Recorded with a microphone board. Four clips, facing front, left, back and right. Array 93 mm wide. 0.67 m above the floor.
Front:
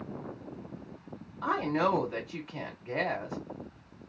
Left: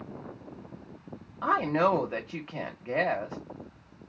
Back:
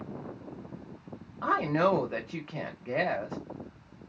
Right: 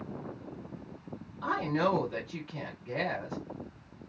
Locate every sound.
1.4 s a woman speaking: 130° left, 1.2 m